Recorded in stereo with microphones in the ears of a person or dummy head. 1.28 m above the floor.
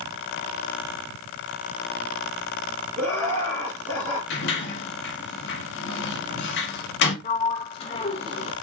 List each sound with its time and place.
3.0 s laughter: 15° left (ahead or behind), 1.9 m; by 4.2 s 25° left (ahead or behind), 3 m
4.3 s a sliding door: 70° left (ahead or behind), 1.3 m
7.2 s a sliding door: 30° left (ahead or behind), 0.7 m